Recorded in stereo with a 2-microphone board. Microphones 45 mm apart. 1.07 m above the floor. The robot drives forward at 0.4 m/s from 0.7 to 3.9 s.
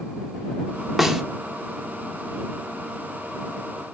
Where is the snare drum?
5° right (ahead or behind), 1.2 m.